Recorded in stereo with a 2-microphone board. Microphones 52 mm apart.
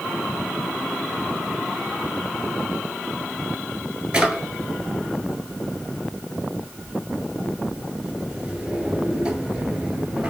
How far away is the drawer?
About 1.2 m.